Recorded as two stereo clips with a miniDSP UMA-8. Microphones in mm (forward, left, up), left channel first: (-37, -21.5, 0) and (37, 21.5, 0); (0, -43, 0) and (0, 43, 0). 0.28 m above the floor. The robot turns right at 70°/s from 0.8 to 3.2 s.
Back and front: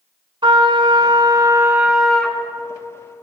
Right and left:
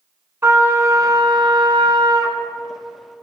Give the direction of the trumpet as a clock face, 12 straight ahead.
11 o'clock.